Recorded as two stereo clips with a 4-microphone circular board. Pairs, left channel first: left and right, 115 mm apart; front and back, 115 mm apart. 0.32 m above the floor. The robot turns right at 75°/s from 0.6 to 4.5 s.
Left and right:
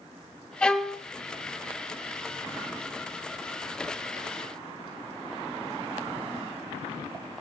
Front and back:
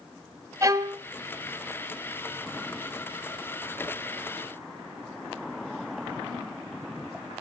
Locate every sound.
0.6 s a violin: 160° left, 1.1 m; by 1.0 s 170° right, 1.1 m